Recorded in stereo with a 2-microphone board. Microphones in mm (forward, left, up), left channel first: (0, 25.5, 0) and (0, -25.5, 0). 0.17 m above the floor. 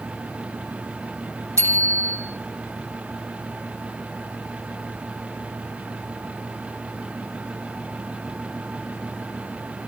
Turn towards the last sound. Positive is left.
turn(degrees=-65)  # may be behind; listen again after turning